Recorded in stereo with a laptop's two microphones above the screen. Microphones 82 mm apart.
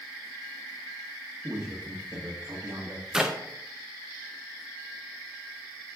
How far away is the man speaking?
About 1.3 m.